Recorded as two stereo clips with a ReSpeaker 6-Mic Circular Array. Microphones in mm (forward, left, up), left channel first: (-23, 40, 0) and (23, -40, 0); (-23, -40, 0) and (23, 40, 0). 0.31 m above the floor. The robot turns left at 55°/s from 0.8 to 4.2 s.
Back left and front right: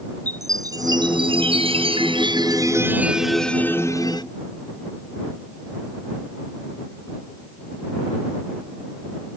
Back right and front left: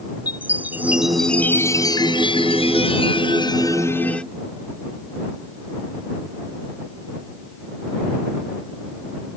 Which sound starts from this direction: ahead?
A chime, at 0.3 s.